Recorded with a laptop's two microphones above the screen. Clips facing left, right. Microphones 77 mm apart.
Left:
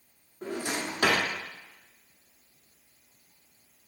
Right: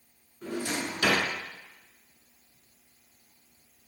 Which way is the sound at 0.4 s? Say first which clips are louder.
Even; 55° left (ahead or behind).